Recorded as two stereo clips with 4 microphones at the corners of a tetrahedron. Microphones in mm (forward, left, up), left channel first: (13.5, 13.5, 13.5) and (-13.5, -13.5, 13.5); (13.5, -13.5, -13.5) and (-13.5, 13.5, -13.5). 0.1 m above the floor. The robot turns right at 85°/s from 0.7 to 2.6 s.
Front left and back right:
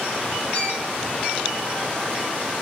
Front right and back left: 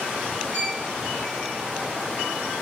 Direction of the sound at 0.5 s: 100° left.